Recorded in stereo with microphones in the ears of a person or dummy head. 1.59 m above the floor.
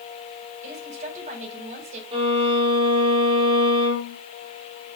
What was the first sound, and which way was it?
A woman speaking, 45° right (ahead or behind).